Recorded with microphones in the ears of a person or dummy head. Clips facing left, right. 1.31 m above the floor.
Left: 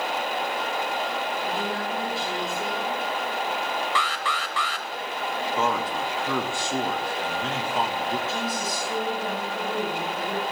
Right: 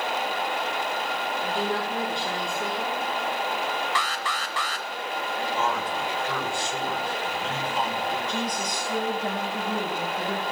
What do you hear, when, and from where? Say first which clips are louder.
1.4 s a woman speaking: right 1 dB; 5° left (ahead or behind), 4.5 m
4.0 s an alarm: left 1 dB; 35° right (ahead or behind), 0.8 m
5.6 s a man speaking: left 3 dB; 65° left (ahead or behind), 3 m
8.3 s a woman speaking: even; 5° left (ahead or behind), 6 m